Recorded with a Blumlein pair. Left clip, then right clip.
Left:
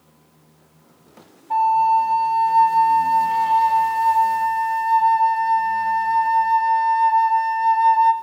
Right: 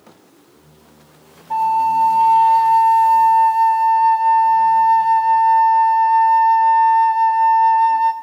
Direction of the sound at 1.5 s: Straight ahead.